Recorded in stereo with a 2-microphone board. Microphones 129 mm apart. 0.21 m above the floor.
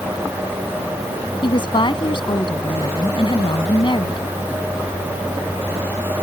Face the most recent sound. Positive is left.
turn(degrees=45)  # may be behind; listen again after turning